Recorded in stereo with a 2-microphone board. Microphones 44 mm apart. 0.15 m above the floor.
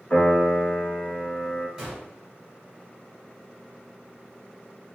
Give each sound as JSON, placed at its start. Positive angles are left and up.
{"t": 0.1, "sound": "a piano", "side_deg": 35, "distance_m": 1.5}
{"t": 1.8, "sound": "a gunshot", "side_deg": -10, "distance_m": 1.5}